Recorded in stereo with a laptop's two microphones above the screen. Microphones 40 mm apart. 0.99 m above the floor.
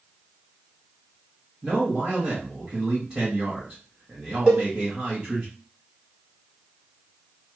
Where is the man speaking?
20° right (ahead or behind), 1.4 m.